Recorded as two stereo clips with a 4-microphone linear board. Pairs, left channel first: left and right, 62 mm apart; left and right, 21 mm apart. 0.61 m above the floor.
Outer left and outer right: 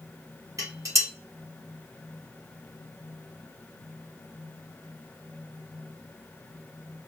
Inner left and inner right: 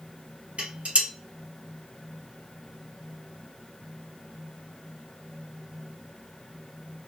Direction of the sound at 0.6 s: 65° right (ahead or behind).